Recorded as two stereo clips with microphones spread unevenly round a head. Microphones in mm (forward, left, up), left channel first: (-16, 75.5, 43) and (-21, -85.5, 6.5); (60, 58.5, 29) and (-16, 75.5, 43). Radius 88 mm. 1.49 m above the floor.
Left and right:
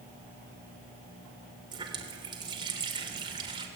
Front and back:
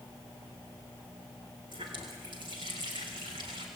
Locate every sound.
1.7 s a running tap: 155° right, 3.5 m